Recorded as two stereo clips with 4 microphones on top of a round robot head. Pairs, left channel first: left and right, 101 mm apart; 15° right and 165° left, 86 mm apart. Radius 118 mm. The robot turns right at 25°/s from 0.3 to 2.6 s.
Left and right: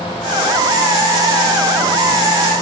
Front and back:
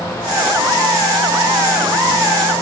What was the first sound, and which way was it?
Only background noise.